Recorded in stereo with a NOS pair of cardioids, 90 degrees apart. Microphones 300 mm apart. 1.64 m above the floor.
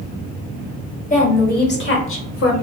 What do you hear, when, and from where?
1.1 s a woman speaking: 25° left, 1.5 m; by 2.5 s 55° left, 1.1 m